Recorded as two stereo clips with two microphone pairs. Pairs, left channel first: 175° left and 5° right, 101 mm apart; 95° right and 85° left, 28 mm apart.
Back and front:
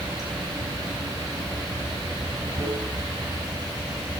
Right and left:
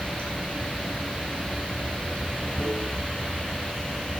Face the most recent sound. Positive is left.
turn(degrees=-50)